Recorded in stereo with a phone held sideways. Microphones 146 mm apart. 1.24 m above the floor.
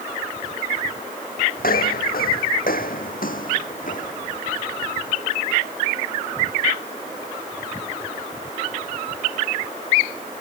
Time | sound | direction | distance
1.6 | footsteps | 70° left (ahead or behind) | ?